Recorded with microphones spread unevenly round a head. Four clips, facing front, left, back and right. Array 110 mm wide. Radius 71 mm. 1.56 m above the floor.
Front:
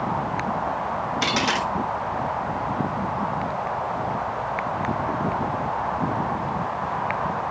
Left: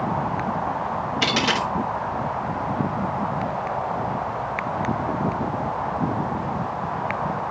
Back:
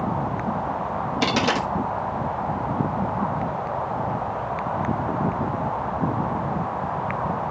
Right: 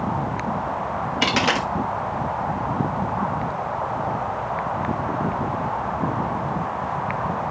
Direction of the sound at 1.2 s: 160° right.